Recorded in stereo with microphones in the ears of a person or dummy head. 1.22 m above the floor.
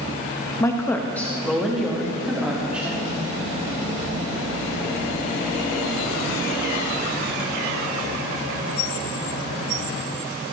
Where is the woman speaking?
20° left (ahead or behind), 0.9 m; by 3.2 s 5° right (ahead or behind), 2.5 m.